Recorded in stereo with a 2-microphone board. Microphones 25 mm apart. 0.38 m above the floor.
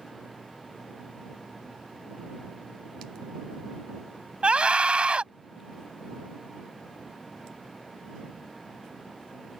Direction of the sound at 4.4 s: 50° right (ahead or behind).